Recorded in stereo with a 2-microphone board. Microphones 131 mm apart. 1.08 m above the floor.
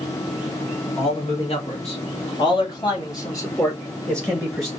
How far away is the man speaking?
About 3 m.